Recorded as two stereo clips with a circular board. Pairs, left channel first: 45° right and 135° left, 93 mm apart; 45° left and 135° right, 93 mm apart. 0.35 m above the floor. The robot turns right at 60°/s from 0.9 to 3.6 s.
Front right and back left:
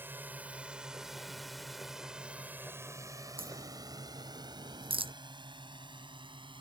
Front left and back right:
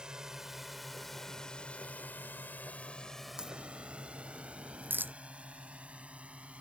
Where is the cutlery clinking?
I don't hear cutlery clinking.